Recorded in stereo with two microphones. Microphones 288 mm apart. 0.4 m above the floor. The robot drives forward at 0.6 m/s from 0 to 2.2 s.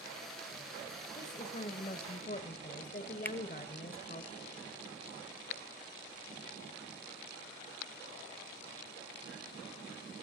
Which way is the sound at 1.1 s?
25° left (ahead or behind).